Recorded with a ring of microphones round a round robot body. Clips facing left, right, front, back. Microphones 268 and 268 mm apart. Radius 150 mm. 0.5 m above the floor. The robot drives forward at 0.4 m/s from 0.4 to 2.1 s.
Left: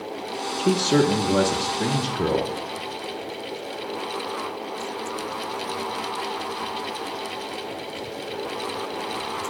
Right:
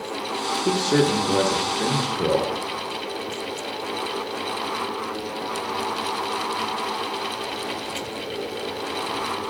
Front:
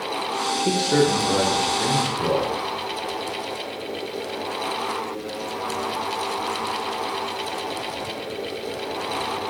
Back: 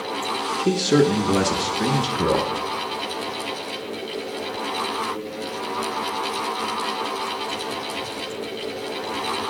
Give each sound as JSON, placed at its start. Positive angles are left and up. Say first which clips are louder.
{"t": 0.6, "sound": "a man speaking", "louder": "left 1 dB, back 2 dB", "azimuth_deg": 140, "distance_m": 0.8}